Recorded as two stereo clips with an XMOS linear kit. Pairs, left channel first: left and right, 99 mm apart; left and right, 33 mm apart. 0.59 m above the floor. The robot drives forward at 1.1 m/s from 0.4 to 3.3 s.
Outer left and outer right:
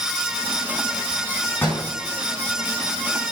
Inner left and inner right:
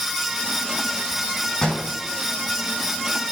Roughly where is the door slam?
Centre.